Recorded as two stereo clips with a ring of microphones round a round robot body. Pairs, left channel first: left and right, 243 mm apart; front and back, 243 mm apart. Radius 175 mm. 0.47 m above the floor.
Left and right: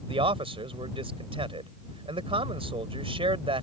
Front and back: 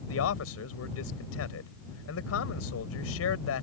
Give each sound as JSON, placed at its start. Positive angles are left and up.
{"t": 0.1, "sound": "a man speaking", "azimuth_deg": -25}